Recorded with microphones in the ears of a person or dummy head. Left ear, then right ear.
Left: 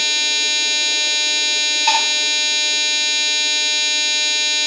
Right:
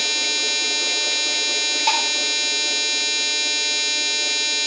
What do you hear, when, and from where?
1.9 s dishes clattering: 80° right, 8 m